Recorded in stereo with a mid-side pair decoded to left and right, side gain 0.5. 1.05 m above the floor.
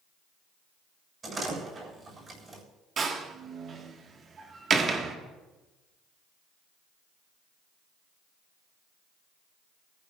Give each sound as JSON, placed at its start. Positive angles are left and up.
{"t": 1.2, "sound": "a door slam", "azimuth_deg": -35, "distance_m": 7.0}
{"t": 3.0, "sound": "a door slam", "azimuth_deg": -45, "distance_m": 1.5}